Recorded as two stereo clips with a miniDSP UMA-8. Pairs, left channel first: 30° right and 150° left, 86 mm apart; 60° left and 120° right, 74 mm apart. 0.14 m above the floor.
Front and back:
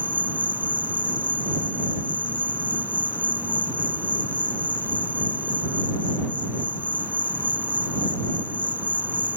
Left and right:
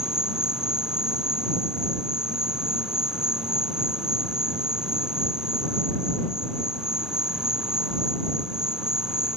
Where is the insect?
175° left.